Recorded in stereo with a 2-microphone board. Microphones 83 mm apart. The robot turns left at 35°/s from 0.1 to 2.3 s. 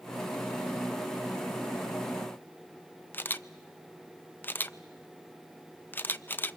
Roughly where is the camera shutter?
Left.